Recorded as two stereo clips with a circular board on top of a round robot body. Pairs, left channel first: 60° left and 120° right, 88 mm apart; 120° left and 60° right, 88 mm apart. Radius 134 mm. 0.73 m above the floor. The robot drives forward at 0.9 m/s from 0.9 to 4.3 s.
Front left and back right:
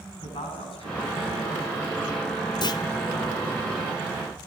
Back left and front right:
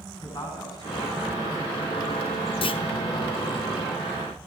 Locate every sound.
0.2 s a man speaking: 70° left, 8.5 m; by 1.7 s 75° left, 8 m
2.6 s a clunk: 100° left, 1.4 m; by 2.8 s 105° left, 1.5 m